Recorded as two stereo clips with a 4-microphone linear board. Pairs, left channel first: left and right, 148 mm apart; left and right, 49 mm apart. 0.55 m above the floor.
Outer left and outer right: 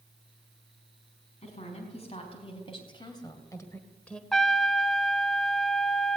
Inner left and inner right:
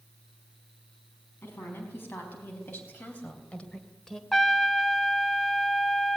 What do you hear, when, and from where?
1.4 s a woman speaking: 50° left (ahead or behind), 5 m; by 4.2 s 5° left (ahead or behind), 2 m
4.3 s a trumpet: centre (ahead or behind), 0.5 m